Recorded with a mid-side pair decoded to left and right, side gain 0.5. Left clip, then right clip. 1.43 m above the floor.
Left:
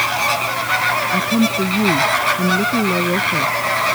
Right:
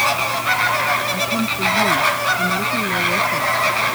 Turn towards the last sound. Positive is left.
turn(degrees=45)